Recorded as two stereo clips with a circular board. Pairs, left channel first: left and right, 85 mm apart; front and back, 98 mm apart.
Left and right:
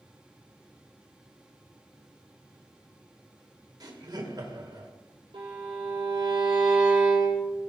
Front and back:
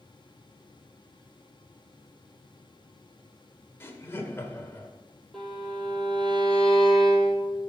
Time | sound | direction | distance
3.8 | laughter | 60° right | 1.9 m
5.3 | a violin | 85° right | 4 m